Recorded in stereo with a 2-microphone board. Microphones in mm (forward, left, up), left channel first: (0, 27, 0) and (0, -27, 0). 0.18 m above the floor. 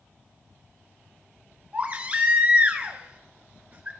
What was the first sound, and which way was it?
A baby crying, 30° right (ahead or behind).